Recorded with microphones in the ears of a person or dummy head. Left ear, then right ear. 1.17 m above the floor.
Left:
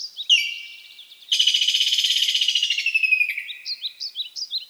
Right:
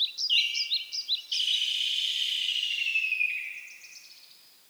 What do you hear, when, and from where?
0.3 s a bird: 50° left (ahead or behind), 0.8 m